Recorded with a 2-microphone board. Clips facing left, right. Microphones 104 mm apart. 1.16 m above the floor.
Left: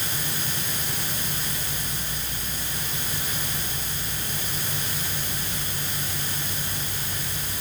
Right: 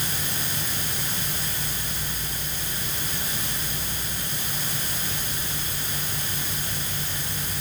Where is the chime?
No chime in this recording.